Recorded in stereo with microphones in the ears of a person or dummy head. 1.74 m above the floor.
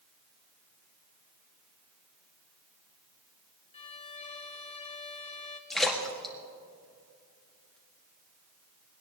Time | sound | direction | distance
3.7 | a violin | 35° left (ahead or behind) | 1.0 m
5.7 | a splash | 5° left (ahead or behind) | 1.8 m